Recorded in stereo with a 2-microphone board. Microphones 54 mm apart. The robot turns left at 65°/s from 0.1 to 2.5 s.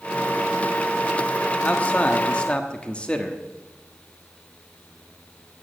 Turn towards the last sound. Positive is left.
turn(degrees=25)  # may be behind; listen again after turning